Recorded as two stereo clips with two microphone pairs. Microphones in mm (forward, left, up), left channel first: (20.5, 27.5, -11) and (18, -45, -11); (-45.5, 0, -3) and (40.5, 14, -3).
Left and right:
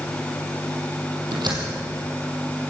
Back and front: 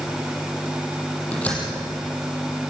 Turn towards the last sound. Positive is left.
turn(degrees=-95)